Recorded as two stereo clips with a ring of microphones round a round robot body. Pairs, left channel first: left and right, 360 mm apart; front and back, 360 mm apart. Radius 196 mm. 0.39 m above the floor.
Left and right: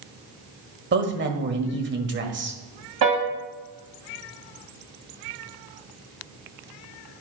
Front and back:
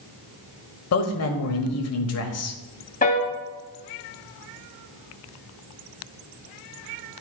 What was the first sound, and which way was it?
A man speaking, 35° right.